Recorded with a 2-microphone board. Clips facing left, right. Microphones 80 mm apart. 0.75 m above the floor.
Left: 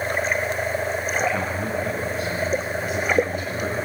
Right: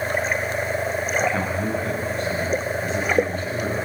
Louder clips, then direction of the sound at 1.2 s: Right 1 dB; 5° left (ahead or behind).